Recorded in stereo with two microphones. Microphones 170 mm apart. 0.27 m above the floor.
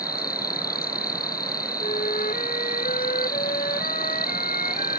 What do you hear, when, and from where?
0.0 s an insect: 65° left (ahead or behind)
1.8 s a flute: 55° left (ahead or behind)